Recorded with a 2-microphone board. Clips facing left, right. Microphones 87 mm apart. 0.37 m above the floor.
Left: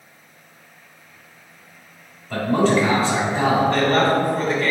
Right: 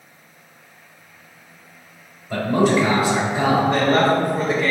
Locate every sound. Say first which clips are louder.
2.3 s a man speaking: even; 15° right (ahead or behind), 1.3 m
3.7 s a woman speaking: right 1 dB; 15° right (ahead or behind), 0.8 m